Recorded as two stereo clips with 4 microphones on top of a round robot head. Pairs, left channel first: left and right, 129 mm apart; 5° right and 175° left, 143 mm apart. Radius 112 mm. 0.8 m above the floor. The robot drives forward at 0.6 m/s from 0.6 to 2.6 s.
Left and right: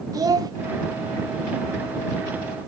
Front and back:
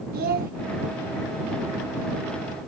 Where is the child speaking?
155° right, 1.1 m.